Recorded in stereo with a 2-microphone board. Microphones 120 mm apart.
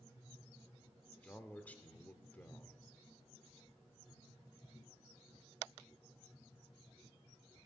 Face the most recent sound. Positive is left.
turn(degrees=15)  # may be behind; listen again after turning